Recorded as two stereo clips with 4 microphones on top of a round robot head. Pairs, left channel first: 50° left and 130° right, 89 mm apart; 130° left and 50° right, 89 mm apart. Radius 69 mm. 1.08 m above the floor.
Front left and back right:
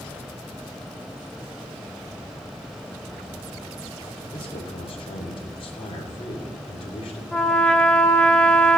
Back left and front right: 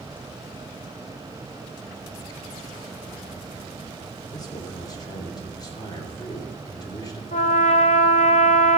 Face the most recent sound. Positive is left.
turn(degrees=130)